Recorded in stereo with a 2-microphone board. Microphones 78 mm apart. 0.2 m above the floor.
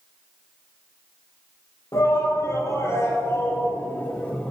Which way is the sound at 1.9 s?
45° left (ahead or behind).